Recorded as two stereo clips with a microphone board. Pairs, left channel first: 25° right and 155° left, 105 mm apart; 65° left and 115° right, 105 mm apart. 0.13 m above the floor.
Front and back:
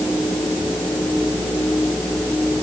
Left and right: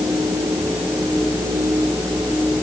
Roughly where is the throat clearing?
I don't hear throat clearing.